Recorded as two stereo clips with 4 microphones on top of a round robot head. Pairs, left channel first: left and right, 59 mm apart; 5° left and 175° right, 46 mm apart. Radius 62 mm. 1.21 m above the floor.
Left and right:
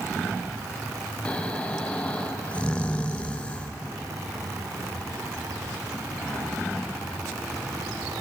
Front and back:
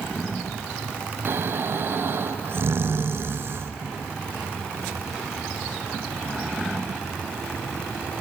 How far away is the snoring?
About 0.5 m.